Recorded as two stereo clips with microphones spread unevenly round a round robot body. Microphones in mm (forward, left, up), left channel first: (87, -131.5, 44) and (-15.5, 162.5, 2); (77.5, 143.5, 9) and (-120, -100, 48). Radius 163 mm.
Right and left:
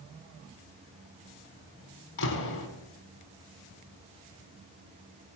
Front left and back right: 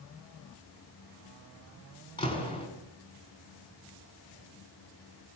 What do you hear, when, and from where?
2.2 s a door slam: 25° right, 4.5 m